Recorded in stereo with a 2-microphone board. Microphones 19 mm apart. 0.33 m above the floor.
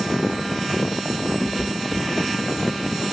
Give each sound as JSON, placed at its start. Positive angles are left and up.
{"t": 1.4, "sound": "a cat meowing", "side_deg": 10, "distance_m": 1.2}